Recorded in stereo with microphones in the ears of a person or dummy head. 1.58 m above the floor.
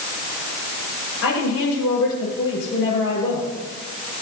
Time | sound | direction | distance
1.2 | a woman speaking | 85° left | 6.5 m